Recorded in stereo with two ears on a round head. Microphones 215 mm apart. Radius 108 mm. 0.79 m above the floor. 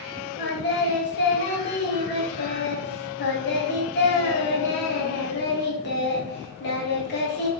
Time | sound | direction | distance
0.4 | singing | 40° left (ahead or behind) | 0.8 m